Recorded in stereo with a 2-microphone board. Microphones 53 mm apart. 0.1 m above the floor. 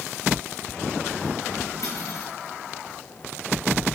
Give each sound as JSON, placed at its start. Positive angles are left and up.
{"t": 1.8, "sound": "cutlery clinking", "side_deg": 65, "distance_m": 4.5}